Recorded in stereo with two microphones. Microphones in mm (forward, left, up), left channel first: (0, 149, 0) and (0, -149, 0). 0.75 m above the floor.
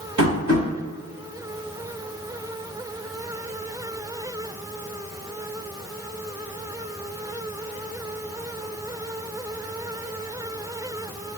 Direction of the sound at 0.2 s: 70° right (ahead or behind).